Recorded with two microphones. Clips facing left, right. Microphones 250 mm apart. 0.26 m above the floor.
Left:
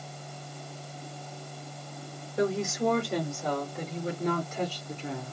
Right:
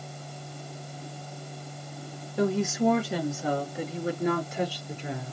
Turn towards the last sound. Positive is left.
turn(degrees=-15)  # may be behind; listen again after turning